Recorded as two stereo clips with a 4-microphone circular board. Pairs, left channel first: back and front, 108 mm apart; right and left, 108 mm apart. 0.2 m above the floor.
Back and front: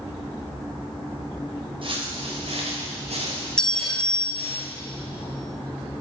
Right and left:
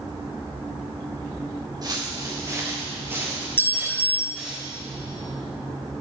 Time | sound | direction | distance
1.8 | footsteps | 35° left | 1.8 m
3.6 | a clink | 110° right | 0.6 m